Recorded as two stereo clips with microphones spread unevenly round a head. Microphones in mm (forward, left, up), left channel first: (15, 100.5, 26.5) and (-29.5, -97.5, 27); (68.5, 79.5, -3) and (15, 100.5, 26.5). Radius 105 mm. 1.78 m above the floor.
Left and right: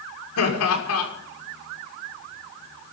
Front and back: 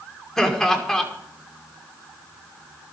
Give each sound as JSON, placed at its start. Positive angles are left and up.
{"t": 0.4, "sound": "laughter", "azimuth_deg": 65, "distance_m": 6.0}